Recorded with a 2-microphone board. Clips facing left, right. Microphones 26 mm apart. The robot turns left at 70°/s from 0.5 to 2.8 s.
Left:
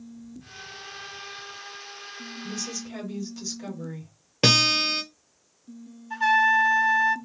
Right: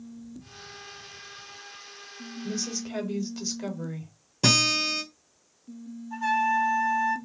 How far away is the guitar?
About 1.0 m.